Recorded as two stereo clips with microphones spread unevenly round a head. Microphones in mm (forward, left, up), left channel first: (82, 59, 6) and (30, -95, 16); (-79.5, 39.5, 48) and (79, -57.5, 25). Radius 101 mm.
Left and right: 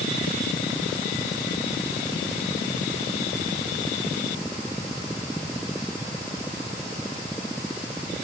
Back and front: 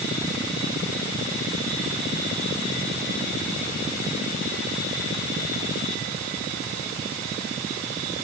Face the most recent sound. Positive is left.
No sound to turn to.